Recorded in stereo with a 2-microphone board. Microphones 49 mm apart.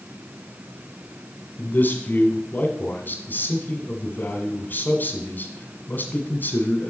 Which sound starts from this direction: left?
A man speaking, at 1.6 s.